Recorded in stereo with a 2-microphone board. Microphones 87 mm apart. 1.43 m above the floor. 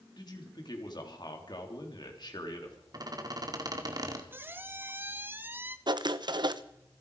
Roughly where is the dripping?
No dripping in this recording.